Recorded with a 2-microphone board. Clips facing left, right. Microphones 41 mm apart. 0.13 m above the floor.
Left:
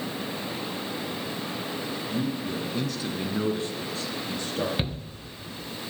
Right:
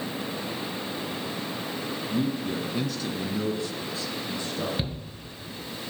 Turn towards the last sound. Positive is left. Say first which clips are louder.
# left 2 dB
turn(degrees=30)  # may be behind; listen again after turning